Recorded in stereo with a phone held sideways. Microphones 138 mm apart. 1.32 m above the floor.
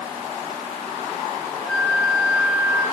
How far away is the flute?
About 3 m.